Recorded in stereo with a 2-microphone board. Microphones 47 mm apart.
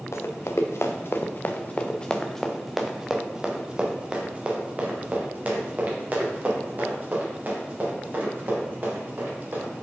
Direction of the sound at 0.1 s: 80° left.